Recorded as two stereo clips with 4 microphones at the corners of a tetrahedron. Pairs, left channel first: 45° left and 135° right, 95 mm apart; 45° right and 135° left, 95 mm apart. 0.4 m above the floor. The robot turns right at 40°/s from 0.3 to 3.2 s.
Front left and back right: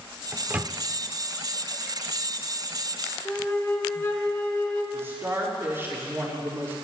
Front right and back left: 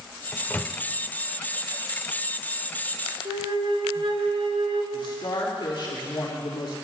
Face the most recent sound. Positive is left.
turn(degrees=-70)